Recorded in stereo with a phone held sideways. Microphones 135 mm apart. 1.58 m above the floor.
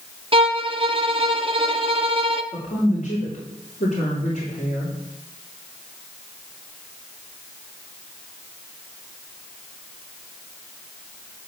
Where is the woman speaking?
80° left, 3.5 m.